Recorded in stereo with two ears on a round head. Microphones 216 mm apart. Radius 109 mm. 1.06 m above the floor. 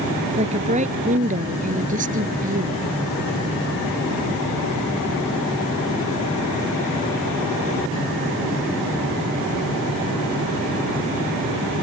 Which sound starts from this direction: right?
A woman speaking, at 0.4 s.